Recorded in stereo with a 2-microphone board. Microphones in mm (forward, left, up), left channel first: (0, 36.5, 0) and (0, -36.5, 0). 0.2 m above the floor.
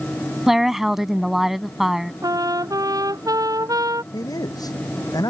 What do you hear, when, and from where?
0.5 s a woman speaking: 5° right (ahead or behind)
2.2 s a trumpet: 55° right (ahead or behind)
4.1 s a man speaking: 60° left (ahead or behind)